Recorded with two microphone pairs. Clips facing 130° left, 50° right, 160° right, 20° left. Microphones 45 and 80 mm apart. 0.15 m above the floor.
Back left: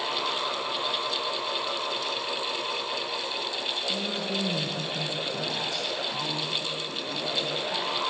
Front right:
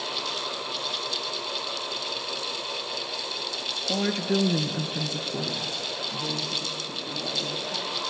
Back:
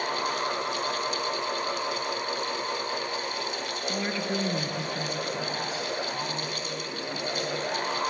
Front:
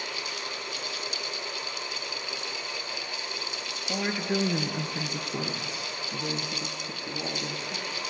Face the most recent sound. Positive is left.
turn(degrees=45)